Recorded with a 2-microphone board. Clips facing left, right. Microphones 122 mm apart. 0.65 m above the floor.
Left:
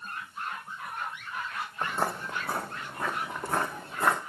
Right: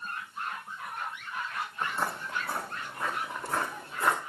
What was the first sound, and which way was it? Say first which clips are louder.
Footsteps: left 3 dB; 45° left (ahead or behind).